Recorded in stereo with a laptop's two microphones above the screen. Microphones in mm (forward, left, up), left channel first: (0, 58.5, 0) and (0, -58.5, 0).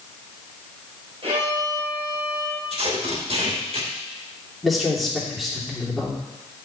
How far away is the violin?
About 2.5 m.